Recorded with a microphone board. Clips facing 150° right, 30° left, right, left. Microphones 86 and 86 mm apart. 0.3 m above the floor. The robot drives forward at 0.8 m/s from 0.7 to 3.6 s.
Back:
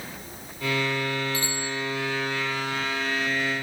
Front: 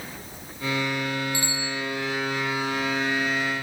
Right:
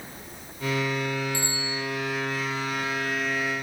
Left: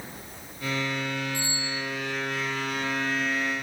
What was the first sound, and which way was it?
A bicycle bell, 95° right.